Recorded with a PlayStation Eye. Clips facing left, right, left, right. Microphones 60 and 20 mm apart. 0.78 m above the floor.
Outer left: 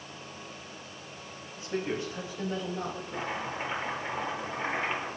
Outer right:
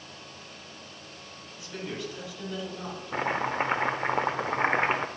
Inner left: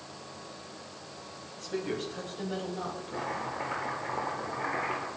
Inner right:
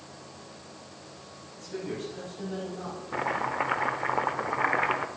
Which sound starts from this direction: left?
A woman speaking, at 1.6 s.